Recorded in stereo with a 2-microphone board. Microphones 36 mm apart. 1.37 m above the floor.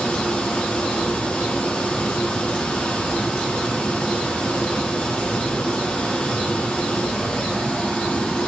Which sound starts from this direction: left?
Running water, at 0.0 s.